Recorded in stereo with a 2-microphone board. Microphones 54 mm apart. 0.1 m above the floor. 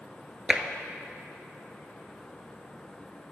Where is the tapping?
20° right (ahead or behind), 0.8 m.